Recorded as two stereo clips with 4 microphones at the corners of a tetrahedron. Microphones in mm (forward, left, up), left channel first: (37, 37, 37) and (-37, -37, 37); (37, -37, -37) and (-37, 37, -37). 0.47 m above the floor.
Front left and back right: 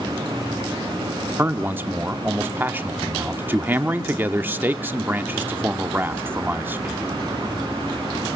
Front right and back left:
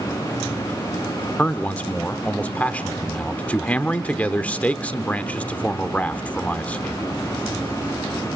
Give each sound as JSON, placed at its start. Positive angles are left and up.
{"t": 1.4, "sound": "a man speaking", "azimuth_deg": -95, "distance_m": 0.8}